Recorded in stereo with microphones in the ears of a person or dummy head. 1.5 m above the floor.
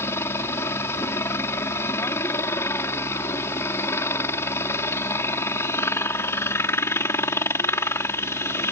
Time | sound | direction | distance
0.0 | a helicopter | 15° left (ahead or behind) | ?